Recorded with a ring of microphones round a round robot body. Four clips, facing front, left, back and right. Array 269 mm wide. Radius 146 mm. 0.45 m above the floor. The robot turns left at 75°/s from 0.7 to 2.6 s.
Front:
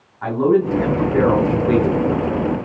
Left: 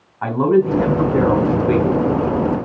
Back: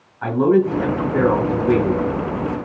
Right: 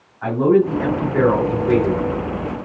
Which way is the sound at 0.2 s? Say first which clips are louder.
Even, even; 100° left.